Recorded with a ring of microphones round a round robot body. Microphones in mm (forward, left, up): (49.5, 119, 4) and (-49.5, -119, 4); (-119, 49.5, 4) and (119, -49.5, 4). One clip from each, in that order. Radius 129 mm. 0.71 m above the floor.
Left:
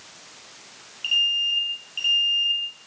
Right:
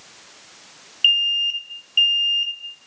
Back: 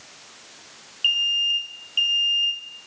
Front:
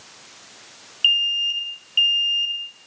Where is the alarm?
95° right, 4 m.